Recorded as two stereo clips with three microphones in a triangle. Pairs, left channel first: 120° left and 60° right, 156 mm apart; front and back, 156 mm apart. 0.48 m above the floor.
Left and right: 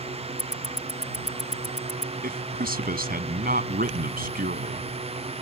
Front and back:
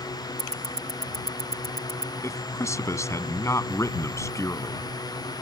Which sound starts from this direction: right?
A man speaking, at 2.2 s.